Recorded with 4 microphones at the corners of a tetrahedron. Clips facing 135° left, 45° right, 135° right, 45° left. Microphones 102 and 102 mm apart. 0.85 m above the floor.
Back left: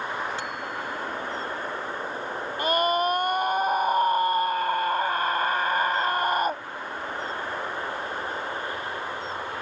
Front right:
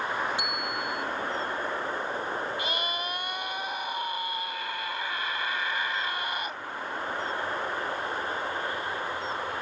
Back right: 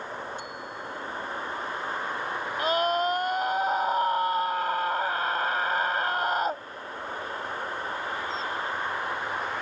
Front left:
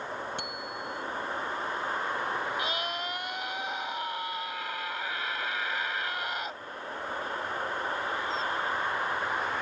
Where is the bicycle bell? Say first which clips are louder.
Even, even; 30° left.